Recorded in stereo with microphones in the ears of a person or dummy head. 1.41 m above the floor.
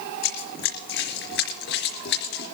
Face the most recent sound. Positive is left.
turn(degrees=60)  # may be behind; listen again after turning